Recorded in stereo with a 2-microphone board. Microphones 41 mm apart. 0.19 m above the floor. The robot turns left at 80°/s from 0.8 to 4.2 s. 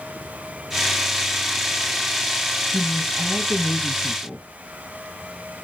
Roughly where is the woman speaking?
Behind left.